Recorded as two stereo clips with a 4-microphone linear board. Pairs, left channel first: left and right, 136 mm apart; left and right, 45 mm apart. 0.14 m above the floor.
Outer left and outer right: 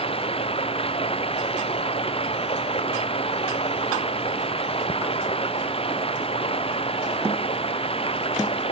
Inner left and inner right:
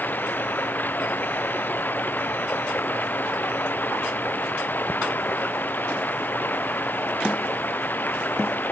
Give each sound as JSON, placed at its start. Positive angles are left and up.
{"t": 0.0, "sound": "running water", "side_deg": 45}